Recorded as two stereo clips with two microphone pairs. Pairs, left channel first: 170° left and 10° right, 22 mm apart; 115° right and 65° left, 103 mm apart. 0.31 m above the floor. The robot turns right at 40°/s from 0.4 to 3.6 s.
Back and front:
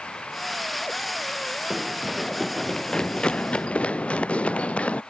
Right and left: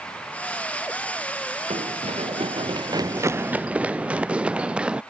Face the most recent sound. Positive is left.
turn(degrees=145)